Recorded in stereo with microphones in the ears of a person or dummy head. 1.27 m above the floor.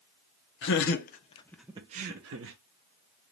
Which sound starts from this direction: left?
Laughter, at 0.6 s.